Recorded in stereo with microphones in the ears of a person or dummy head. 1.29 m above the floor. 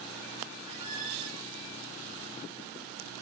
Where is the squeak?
30° right (ahead or behind), 1.3 m.